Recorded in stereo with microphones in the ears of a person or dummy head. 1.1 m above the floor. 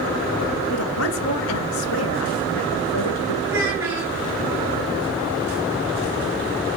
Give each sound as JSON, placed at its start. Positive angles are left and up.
{"t": 0.7, "sound": "a woman speaking", "side_deg": 90, "distance_m": 1.2}
{"t": 3.5, "sound": "a child speaking", "side_deg": -15, "distance_m": 4.5}